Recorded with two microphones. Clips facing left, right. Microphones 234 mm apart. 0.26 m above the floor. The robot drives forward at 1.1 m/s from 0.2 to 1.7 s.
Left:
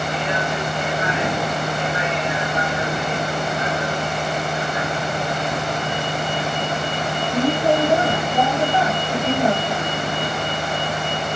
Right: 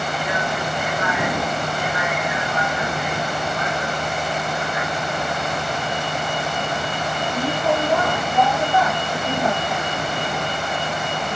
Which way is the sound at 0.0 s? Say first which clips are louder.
Left 1 dB; 25° left (ahead or behind).